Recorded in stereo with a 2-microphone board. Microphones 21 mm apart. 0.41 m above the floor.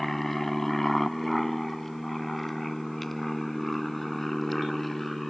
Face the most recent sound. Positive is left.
turn(degrees=10)  # may be behind; listen again after turning